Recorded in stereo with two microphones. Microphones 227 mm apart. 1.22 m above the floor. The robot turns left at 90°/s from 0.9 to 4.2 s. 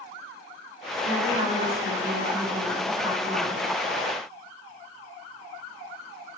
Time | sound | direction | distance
1.0 | a woman speaking | 105° right | 8 m